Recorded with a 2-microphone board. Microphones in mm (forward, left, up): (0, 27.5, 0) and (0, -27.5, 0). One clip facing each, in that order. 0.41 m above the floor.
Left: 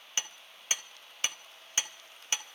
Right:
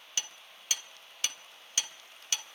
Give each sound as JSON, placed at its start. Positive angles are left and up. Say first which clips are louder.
{"t": 0.2, "sound": "hammering", "louder": "left 2 dB", "side_deg": 30, "distance_m": 1.7}